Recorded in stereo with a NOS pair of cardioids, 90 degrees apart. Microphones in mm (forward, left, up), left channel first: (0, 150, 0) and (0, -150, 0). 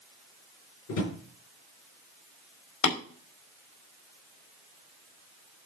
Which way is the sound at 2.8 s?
65° left.